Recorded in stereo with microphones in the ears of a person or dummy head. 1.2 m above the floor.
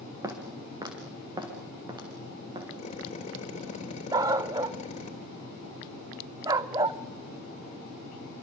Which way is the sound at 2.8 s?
40° left (ahead or behind).